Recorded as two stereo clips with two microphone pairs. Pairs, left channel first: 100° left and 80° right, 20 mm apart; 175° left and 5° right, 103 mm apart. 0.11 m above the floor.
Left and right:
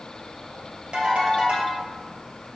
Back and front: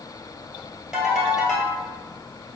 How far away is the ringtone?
About 1.6 m.